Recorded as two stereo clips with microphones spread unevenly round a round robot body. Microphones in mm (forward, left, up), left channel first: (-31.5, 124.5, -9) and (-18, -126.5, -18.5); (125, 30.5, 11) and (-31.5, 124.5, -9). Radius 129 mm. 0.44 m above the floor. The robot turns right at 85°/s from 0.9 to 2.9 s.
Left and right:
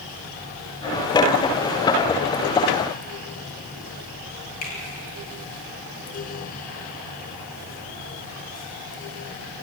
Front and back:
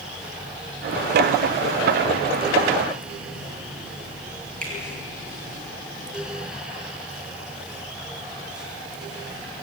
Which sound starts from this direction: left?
A finger snap, at 4.6 s.